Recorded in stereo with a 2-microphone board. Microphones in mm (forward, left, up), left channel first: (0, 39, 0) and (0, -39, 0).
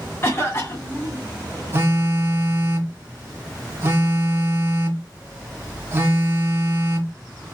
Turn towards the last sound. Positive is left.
turn(degrees=-30)  # may be behind; listen again after turning